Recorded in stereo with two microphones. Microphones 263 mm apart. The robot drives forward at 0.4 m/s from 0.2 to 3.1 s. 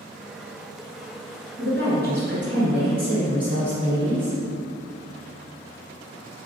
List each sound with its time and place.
1.6 s a woman speaking: 45° right (ahead or behind), 2.0 m